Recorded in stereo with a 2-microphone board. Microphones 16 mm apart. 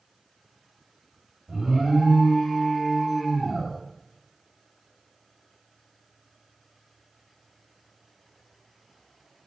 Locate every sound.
1.5 s an alarm: 35° right (ahead or behind), 2.5 m